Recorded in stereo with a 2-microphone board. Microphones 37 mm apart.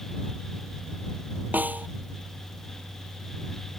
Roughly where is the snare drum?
Right.